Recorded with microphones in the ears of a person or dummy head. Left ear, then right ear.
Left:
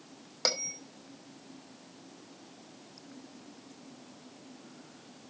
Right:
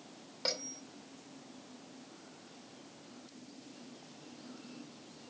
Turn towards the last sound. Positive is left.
turn(degrees=50)  # may be behind; listen again after turning